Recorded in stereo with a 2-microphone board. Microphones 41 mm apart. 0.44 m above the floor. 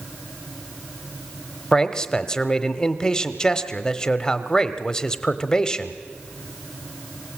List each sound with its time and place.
1.7 s a man speaking: 15° left (ahead or behind), 1.0 m